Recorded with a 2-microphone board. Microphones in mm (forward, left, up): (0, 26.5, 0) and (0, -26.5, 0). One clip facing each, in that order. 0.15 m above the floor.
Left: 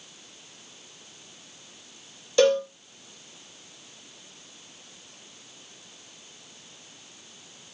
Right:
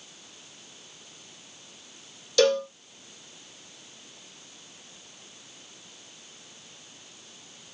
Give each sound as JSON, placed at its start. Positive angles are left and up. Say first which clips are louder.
{"t": 2.4, "sound": "a cowbell", "louder": "left 2 dB", "side_deg": 20, "distance_m": 0.9}